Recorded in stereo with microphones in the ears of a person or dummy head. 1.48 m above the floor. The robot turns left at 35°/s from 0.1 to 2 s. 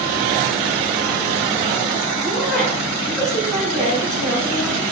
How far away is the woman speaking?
About 4 m.